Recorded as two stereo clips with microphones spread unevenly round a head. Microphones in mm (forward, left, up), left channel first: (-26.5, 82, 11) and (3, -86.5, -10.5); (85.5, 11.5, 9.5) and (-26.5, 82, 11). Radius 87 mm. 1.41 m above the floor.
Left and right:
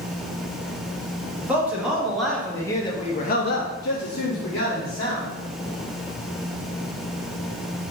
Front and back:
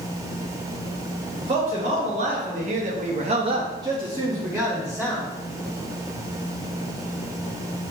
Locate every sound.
1.4 s a man speaking: 155° right, 1.3 m; by 5.3 s 55° left, 1.4 m